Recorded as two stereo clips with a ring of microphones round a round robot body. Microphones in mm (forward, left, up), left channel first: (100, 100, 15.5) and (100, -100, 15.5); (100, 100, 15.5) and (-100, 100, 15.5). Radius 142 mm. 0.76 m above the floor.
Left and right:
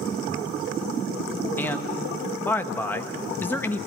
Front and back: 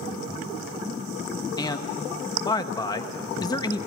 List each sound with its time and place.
1.6 s a man speaking: 25° left, 1.0 m